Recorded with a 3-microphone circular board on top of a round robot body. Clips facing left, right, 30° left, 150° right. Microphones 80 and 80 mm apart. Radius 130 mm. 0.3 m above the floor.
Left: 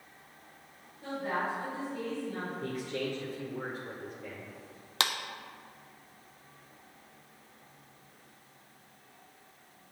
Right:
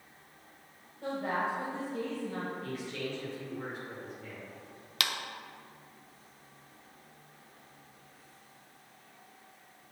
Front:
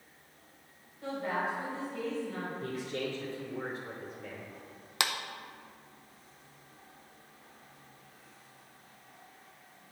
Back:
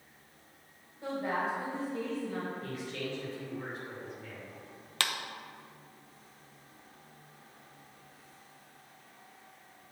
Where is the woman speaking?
85° right, 1.9 m.